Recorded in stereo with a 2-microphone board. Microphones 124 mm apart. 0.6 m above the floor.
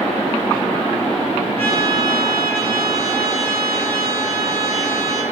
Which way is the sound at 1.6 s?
45° right (ahead or behind).